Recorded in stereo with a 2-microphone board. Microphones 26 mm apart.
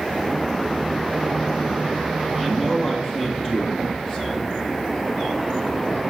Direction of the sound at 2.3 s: 5° right (ahead or behind).